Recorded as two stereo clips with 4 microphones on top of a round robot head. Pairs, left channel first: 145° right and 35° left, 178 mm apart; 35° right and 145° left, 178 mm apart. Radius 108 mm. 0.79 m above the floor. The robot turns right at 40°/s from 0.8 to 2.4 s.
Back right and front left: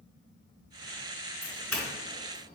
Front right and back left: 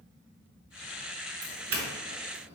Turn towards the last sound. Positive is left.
turn(degrees=155)